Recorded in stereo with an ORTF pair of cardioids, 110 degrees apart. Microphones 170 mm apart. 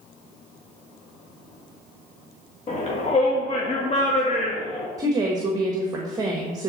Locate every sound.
2.7 s a shout: 45° left, 1.5 m
5.0 s a woman speaking: 25° right, 1.2 m